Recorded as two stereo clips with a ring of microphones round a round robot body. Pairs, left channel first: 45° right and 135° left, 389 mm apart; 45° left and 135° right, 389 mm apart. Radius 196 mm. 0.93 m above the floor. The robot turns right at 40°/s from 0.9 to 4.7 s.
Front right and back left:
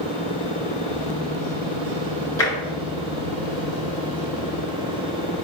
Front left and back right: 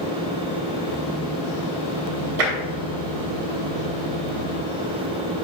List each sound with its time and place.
2.4 s tapping: 130° right, 1.9 m; by 2.6 s 120° right, 1.9 m